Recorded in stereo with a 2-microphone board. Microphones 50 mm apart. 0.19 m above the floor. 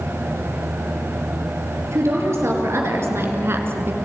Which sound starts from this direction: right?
A woman speaking, at 1.9 s.